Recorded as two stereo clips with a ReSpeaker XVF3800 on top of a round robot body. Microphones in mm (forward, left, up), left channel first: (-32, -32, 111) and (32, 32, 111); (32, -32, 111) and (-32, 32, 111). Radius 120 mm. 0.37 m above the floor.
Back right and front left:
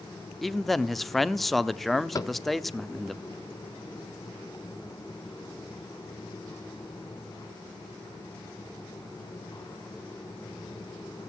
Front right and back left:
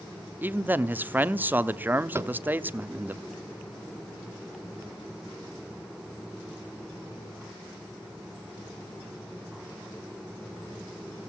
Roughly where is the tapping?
Behind.